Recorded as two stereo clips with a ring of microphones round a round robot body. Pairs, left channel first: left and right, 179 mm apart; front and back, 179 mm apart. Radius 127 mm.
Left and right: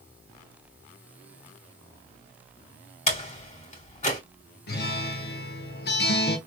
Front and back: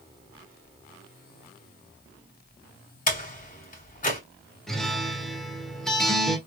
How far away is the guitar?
About 1.4 m.